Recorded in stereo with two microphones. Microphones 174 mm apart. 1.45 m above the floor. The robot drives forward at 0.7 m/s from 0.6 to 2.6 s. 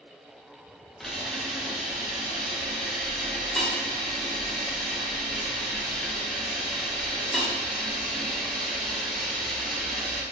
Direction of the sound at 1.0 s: Centre (ahead or behind).